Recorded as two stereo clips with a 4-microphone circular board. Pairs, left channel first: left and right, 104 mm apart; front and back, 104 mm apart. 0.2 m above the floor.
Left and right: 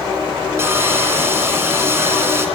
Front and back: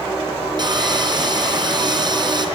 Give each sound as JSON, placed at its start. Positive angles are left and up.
{"t": 0.6, "sound": "sawing", "azimuth_deg": -150, "distance_m": 2.5}